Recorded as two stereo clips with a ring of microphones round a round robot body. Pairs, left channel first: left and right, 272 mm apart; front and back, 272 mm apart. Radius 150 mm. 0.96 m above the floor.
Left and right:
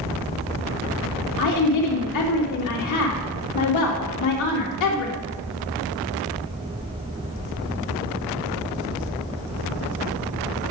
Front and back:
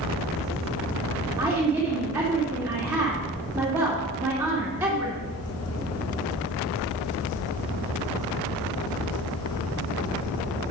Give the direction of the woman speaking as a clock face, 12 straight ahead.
9 o'clock.